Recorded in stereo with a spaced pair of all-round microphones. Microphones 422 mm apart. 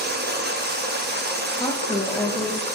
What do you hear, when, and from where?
0.0 s running water: 25° right (ahead or behind), 0.9 m
1.6 s a woman speaking: 10° left (ahead or behind), 1.0 m